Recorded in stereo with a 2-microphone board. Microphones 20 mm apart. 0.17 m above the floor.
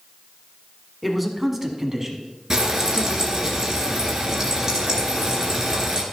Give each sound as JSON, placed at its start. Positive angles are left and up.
{"t": 1.0, "sound": "a man speaking", "side_deg": -5, "distance_m": 1.7}
{"t": 2.5, "sound": "frying", "side_deg": -25, "distance_m": 2.5}